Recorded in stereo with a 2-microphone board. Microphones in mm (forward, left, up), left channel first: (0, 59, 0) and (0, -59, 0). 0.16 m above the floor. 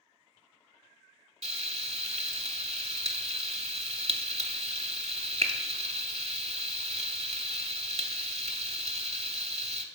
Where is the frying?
60° right (ahead or behind), 0.7 m.